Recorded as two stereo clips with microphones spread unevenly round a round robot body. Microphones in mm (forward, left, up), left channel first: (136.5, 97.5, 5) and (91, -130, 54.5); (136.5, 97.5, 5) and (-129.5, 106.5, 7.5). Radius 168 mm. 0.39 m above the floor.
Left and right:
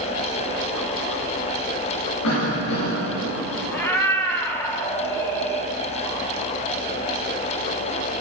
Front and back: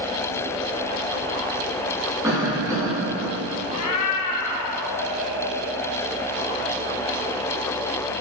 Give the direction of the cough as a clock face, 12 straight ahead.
9 o'clock.